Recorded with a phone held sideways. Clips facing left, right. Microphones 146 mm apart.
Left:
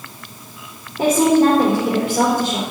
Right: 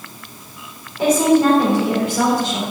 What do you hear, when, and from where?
1.0 s a woman speaking: 55° left (ahead or behind), 3 m